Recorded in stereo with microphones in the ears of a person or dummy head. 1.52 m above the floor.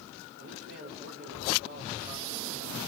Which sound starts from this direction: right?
A man speaking, at 0.4 s.